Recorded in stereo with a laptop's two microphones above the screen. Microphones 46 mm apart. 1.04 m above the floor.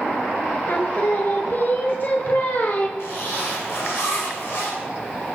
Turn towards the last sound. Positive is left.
turn(degrees=85)